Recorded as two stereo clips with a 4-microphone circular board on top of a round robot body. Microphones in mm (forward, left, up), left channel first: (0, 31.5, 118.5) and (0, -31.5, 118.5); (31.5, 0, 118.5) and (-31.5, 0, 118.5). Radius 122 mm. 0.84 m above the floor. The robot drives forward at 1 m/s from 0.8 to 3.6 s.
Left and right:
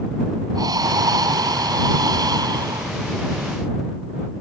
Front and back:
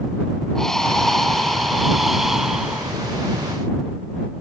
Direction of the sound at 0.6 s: 80° right.